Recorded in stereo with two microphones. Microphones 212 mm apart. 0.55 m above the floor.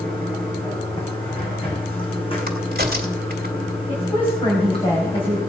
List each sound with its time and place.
0.0 s running water: 25° left (ahead or behind), 3 m
2.5 s a crack: 50° right (ahead or behind), 1.8 m
3.9 s a woman speaking: 25° left (ahead or behind), 3.5 m